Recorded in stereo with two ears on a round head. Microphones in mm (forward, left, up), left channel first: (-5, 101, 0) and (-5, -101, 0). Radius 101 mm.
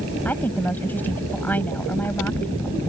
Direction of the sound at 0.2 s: 10° left (ahead or behind).